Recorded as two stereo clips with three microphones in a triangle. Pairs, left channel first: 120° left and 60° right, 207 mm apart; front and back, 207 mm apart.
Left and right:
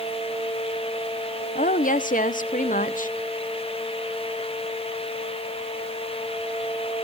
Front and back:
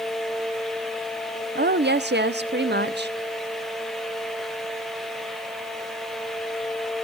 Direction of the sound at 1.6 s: 160° left.